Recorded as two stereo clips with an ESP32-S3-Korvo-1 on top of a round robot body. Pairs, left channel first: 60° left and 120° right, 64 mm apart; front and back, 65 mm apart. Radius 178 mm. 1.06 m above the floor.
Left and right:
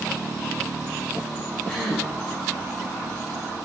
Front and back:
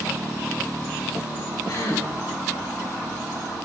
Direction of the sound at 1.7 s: 25° right.